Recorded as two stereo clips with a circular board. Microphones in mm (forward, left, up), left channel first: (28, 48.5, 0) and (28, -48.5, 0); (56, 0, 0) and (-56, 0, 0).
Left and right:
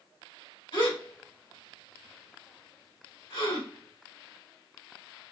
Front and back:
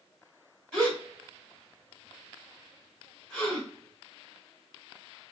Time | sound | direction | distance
0.7 | a gasp | 85° left | 2.5 m